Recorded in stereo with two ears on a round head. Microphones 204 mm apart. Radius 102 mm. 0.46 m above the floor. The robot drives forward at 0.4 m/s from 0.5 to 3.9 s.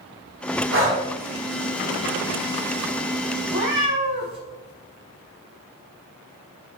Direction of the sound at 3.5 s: 65° right (ahead or behind).